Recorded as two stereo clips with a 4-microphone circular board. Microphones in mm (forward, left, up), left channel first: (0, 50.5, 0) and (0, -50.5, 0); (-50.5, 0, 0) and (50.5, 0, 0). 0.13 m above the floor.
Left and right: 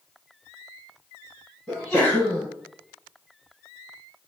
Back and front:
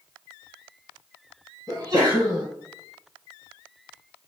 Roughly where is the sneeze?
Ahead.